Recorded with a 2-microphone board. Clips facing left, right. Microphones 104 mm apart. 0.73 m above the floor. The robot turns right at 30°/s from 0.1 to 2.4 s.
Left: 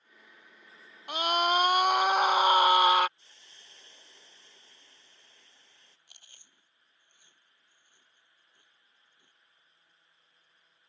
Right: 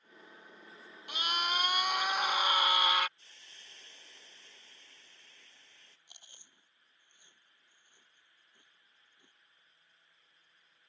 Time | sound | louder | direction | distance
1.1 | a scream | left 9 dB | 75° left | ?
3.2 | a hiss | even | 20° left (ahead or behind) | ?
6.1 | chewing | right 1 dB | 20° right (ahead or behind) | ?